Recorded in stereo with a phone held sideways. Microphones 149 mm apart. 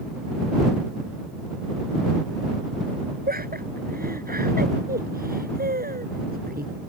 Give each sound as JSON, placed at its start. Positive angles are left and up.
{"t": 3.3, "sound": "laughter", "side_deg": -90}